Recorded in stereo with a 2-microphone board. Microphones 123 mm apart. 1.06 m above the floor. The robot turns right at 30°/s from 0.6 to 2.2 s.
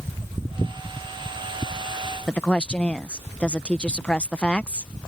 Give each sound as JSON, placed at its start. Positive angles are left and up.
{"t": 2.3, "sound": "a woman speaking", "side_deg": 10}